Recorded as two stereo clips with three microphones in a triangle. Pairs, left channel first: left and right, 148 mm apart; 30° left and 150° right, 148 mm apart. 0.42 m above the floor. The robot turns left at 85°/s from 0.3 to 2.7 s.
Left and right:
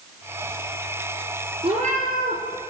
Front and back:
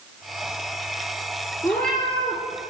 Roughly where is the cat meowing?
Ahead right.